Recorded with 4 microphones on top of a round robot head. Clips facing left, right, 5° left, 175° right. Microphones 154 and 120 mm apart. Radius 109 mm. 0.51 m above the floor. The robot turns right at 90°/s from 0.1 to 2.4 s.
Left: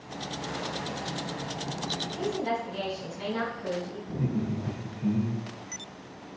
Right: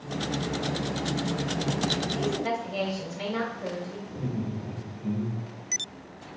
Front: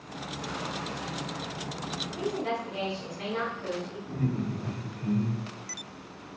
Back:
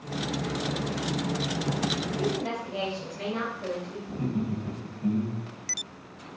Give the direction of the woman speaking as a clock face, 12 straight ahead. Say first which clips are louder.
Left 2 dB, front 2 dB; 5 o'clock.